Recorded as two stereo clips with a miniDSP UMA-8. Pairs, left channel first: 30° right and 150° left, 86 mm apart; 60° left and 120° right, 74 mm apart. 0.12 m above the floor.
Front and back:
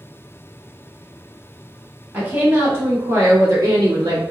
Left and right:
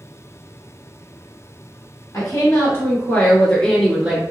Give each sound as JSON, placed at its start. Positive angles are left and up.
{"t": 2.1, "sound": "a woman speaking", "azimuth_deg": 90, "distance_m": 1.6}